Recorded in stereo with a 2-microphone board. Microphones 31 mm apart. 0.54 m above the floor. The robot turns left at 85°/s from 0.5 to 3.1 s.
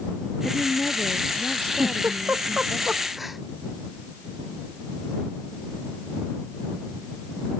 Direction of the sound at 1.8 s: 60° right (ahead or behind).